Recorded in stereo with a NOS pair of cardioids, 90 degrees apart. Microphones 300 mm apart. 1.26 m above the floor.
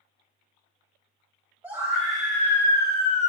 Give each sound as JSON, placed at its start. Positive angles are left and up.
{"t": 1.6, "sound": "a scream", "azimuth_deg": -5, "distance_m": 1.6}